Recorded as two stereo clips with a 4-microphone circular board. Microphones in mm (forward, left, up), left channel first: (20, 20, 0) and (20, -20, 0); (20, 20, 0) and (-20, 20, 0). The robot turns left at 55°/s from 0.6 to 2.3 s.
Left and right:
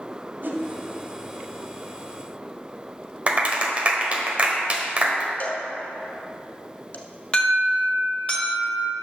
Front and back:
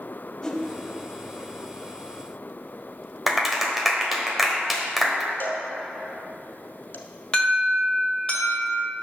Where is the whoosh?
70° right, 1.1 m; by 0.6 s 75° right, 1.1 m.